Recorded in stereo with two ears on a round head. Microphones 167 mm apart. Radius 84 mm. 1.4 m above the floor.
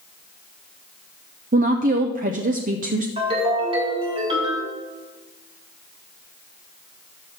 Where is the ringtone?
30° right (ahead or behind), 3.5 m.